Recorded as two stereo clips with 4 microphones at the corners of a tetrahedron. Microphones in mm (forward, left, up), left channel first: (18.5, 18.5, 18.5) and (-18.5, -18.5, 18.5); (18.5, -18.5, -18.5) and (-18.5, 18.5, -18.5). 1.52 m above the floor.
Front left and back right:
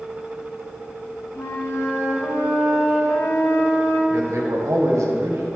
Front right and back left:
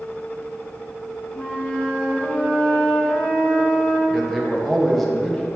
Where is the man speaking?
135° right, 1.3 m.